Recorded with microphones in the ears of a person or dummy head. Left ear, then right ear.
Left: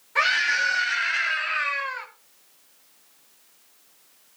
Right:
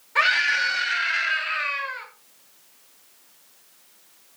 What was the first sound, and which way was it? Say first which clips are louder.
A scream: right 1 dB; 5° left (ahead or behind).